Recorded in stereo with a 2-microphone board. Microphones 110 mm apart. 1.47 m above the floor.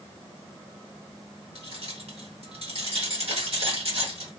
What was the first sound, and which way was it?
Keys jangling, 65° right (ahead or behind).